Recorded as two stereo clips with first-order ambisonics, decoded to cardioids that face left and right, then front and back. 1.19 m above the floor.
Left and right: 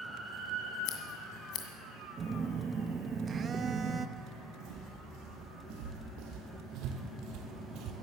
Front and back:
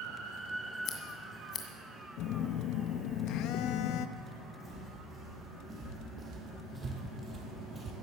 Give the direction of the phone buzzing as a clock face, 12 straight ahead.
1 o'clock.